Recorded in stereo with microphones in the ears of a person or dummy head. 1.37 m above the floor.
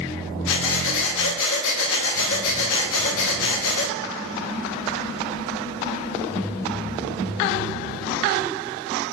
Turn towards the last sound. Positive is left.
turn(degrees=75)  # may be behind; listen again after turning